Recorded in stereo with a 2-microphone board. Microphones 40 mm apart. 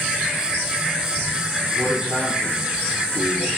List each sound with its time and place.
1.8 s a man speaking: 25° right (ahead or behind), 6 m